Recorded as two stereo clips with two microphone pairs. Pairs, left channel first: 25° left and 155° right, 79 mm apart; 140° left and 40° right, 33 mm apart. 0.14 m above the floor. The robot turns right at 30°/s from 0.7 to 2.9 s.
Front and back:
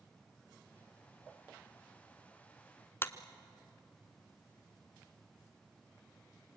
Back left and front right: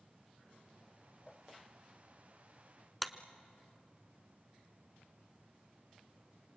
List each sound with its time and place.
3.0 s a clap: 45° left, 1.0 m